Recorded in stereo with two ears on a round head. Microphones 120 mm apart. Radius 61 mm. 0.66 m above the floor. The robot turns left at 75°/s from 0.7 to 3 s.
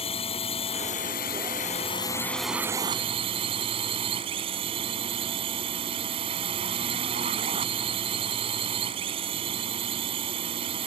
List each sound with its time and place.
0.0 s a drone: 130° left; by 10.9 s 40° right